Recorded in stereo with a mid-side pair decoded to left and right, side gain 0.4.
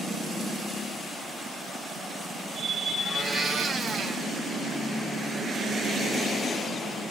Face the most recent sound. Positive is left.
turn(degrees=-45)